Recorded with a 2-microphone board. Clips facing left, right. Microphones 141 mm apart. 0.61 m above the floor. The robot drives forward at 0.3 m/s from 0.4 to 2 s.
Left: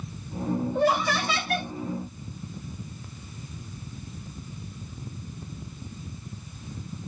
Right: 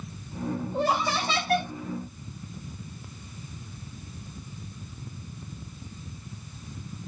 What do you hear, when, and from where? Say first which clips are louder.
0.7 s laughter: left 2 dB; 30° right (ahead or behind), 1.4 m